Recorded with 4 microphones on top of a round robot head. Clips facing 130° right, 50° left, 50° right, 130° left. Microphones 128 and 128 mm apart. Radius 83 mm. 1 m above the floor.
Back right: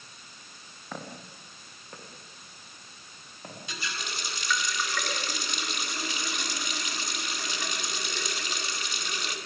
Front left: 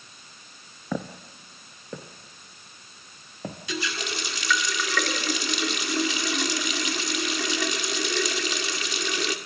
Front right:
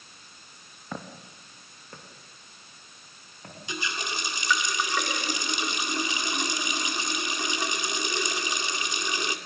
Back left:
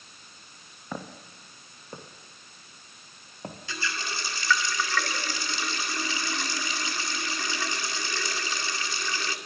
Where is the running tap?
25° left, 2 m.